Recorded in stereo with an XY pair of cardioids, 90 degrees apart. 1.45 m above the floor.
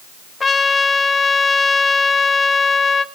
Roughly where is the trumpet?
Ahead left.